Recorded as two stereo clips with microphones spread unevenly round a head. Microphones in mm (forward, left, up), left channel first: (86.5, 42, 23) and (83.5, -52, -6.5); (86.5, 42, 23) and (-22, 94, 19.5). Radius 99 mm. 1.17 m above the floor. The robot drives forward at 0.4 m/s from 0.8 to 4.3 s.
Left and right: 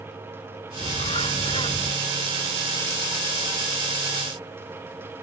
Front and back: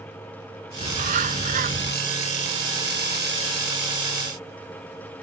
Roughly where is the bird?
Behind left.